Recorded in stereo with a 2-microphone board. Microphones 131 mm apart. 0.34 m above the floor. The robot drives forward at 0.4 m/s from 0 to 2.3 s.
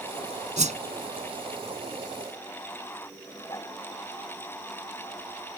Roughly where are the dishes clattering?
Left.